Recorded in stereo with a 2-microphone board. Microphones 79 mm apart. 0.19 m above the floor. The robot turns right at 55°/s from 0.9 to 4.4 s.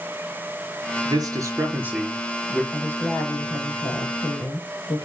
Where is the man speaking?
70° right, 4 m; by 2.6 s 20° left, 4 m.